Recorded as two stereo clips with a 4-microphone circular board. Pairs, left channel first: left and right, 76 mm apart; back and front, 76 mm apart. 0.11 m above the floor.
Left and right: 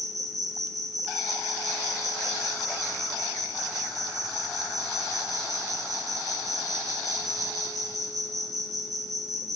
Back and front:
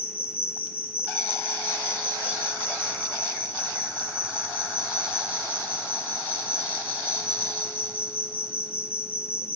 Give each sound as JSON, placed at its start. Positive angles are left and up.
{"t": 0.0, "sound": "an insect", "azimuth_deg": -70, "distance_m": 3.5}